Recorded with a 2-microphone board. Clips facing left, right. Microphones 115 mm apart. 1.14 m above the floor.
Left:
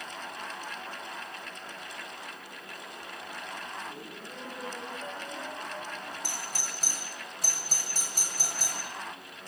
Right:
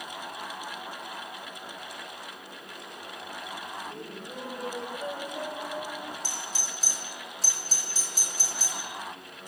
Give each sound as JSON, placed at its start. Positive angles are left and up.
{"t": 3.8, "sound": "laughter", "side_deg": -20, "distance_m": 5.0}
{"t": 6.2, "sound": "a doorbell", "side_deg": 55, "distance_m": 8.5}